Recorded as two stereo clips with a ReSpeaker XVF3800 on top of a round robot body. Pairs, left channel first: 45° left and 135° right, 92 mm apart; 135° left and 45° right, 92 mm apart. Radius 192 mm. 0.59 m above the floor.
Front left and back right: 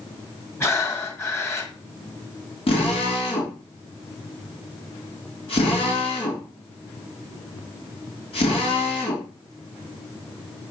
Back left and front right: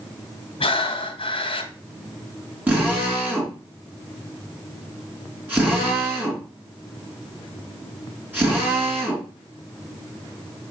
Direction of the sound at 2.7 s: 25° left.